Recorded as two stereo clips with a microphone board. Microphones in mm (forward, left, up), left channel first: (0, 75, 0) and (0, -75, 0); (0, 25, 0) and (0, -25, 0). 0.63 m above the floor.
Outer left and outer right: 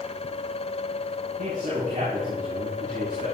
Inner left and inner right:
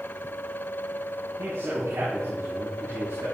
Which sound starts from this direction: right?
A man speaking, at 1.4 s.